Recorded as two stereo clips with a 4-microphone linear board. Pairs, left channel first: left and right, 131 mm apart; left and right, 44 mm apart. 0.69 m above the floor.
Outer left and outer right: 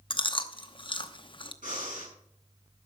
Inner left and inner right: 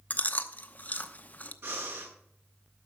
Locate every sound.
0.1 s chewing: 40° left (ahead or behind), 0.8 m
1.6 s breathing: 85° right, 7 m